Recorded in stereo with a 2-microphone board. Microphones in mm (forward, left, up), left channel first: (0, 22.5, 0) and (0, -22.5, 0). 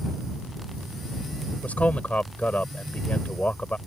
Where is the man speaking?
35° left (ahead or behind).